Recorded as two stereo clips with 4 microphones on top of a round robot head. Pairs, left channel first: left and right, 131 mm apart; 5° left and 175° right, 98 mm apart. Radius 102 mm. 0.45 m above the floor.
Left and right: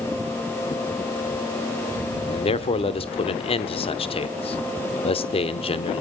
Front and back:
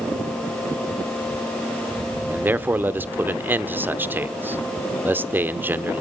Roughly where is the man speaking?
Behind left.